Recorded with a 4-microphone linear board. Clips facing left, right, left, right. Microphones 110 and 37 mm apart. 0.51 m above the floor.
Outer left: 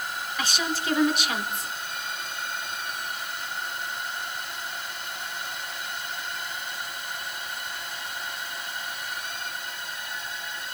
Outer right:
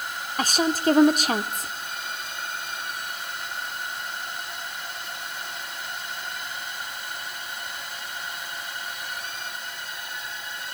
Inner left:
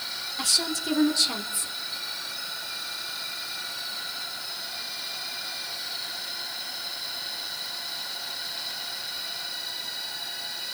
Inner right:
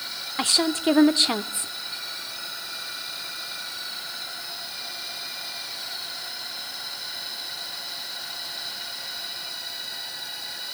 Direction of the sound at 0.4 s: 40° right (ahead or behind).